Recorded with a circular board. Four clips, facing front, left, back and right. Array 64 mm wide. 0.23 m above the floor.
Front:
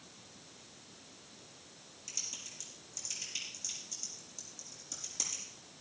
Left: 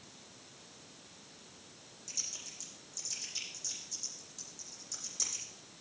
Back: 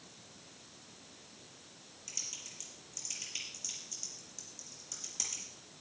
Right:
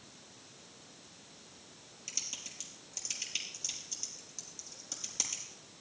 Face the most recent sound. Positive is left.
turn(degrees=-95)